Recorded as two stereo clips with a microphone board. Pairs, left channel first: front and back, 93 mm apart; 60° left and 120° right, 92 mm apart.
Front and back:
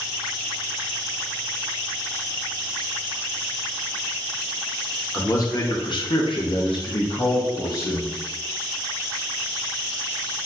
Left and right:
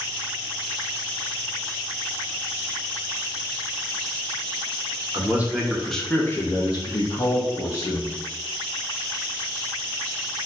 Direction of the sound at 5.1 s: 55° right.